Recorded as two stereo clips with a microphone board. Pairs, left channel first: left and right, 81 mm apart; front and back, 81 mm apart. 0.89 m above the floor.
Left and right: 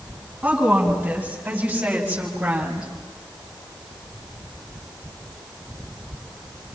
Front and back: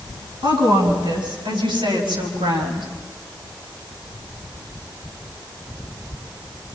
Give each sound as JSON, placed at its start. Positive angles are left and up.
{"t": 0.4, "sound": "a woman speaking", "azimuth_deg": -165, "distance_m": 9.0}